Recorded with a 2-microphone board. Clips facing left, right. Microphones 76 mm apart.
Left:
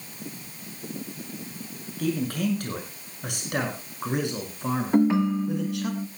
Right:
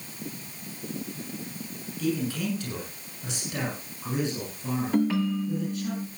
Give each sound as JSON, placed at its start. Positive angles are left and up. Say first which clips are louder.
{"t": 2.0, "sound": "a man speaking", "louder": "left 2 dB", "side_deg": 50, "distance_m": 8.0}
{"t": 4.9, "sound": "a ringtone", "louder": "left 4 dB", "side_deg": 25, "distance_m": 0.7}